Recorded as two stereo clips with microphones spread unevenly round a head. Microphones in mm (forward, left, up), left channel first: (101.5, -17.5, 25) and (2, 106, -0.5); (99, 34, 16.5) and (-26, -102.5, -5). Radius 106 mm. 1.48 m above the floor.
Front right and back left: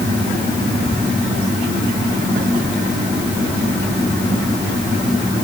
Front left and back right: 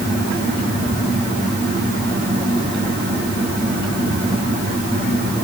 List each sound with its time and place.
Only background noise.